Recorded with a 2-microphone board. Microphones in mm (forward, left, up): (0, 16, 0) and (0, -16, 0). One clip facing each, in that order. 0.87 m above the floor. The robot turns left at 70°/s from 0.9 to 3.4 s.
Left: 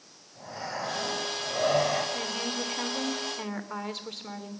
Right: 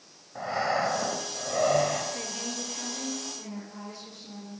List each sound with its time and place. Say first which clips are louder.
0.3 s breathing: right 9 dB; 115° right, 4.5 m; by 2.0 s 165° left, 4.5 m
2.1 s a woman speaking: left 4 dB; 170° left, 3.5 m; by 4.6 s 80° left, 3.5 m